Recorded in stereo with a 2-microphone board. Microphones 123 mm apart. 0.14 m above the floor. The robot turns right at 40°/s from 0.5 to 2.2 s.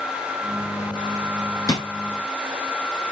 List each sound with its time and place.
1.7 s a drawer: 30° left (ahead or behind), 1.0 m; by 1.9 s 35° left (ahead or behind), 1.0 m